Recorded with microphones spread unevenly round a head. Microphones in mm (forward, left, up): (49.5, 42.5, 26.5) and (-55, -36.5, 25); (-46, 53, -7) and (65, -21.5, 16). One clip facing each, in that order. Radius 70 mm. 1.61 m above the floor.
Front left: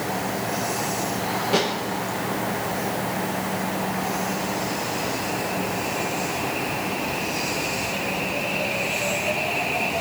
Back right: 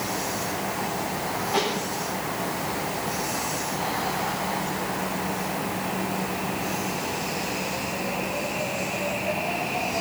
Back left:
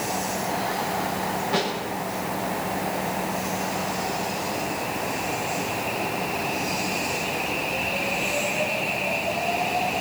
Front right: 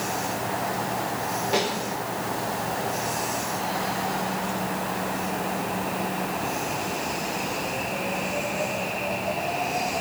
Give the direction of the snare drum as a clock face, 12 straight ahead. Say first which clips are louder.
Front left 3 dB, front right 1 dB; 11 o'clock.